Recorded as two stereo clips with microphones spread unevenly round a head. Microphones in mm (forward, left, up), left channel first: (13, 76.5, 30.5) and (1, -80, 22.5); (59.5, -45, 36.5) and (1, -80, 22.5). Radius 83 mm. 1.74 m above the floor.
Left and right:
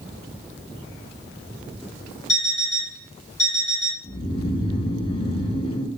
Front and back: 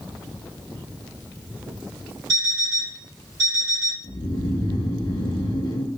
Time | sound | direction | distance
2.3 | an alarm clock | 140° left | 1.5 m
4.0 | snoring | 30° left | 0.7 m